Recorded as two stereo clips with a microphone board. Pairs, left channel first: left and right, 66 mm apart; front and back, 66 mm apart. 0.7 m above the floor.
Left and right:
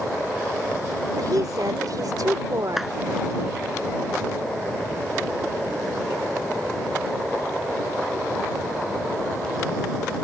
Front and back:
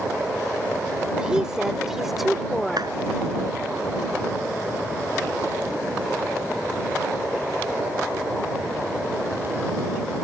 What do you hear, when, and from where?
1.2 s a woman speaking: 105° right; by 2.9 s 85° right
2.8 s a clap: 175° right